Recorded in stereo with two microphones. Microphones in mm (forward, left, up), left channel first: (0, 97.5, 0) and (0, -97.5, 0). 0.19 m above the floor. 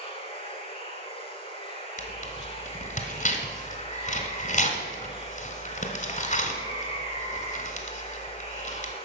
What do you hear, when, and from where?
0.0 s running water: 30° left (ahead or behind), 1.4 m
2.0 s tearing paper: 40° left (ahead or behind), 1.3 m